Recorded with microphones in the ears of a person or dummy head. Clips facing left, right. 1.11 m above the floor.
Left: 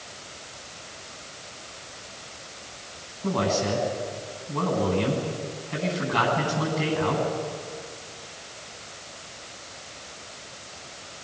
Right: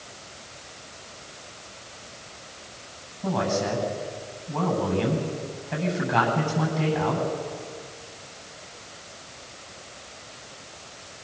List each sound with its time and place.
3.2 s a man speaking: 65° right (ahead or behind), 9 m